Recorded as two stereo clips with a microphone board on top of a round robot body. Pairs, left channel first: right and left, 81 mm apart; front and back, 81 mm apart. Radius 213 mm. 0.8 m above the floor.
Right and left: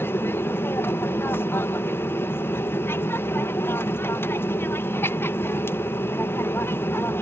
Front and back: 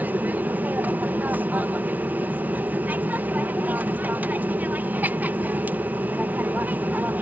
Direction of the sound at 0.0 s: 125° right.